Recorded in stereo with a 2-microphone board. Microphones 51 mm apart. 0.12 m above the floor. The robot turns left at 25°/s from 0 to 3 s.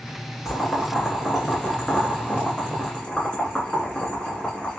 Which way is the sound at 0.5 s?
5° right (ahead or behind).